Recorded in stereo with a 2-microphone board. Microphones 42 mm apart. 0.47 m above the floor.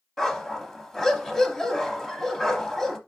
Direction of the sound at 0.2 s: 5° left (ahead or behind).